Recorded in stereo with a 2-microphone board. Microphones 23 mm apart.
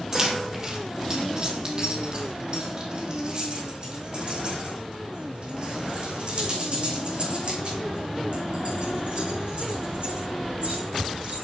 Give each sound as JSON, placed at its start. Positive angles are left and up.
{"t": 0.1, "sound": "keys jangling", "side_deg": -25, "distance_m": 3.0}